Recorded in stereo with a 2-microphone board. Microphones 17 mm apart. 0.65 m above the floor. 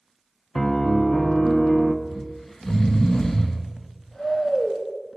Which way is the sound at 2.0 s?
55° left (ahead or behind).